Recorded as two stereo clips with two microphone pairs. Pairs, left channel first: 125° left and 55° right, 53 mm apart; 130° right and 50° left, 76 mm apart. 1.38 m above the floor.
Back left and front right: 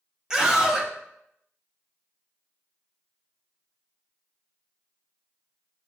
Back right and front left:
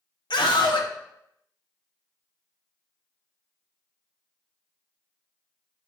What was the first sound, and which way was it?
A scream, 135° right.